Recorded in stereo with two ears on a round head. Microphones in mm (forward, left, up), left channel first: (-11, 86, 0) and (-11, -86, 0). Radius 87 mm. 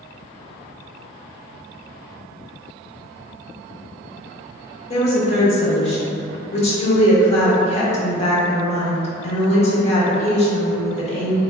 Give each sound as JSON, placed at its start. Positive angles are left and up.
{"t": 4.9, "sound": "a woman speaking", "side_deg": 30, "distance_m": 0.9}